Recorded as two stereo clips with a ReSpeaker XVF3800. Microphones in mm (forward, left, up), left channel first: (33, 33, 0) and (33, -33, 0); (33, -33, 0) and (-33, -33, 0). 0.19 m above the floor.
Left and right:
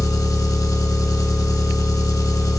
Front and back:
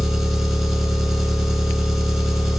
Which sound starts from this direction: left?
An engine running, at 0.0 s.